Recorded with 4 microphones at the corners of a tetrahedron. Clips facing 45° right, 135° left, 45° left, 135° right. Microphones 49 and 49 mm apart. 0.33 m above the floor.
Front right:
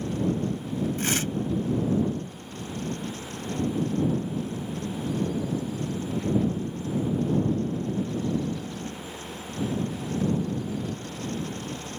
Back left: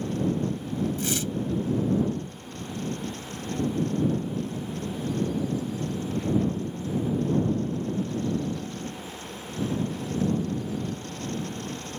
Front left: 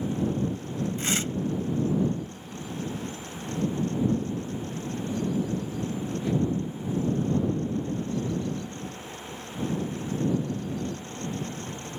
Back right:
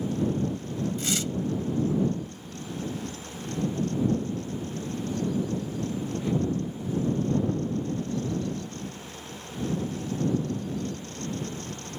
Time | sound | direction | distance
1.0 | tearing paper | 10° right | ?